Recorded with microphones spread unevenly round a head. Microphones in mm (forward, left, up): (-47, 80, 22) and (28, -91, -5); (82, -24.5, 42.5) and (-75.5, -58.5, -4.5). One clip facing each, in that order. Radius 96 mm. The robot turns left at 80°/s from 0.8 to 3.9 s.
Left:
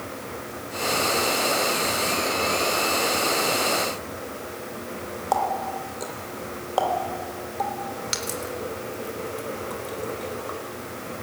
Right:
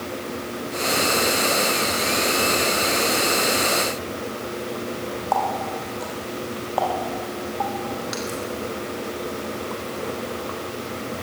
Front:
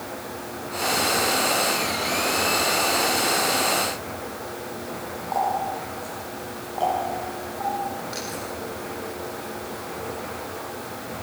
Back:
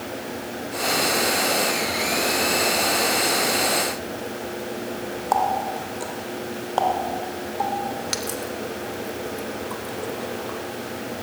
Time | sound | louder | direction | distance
5.3 | a running tap | even, back 2 dB | 165° left | 3 m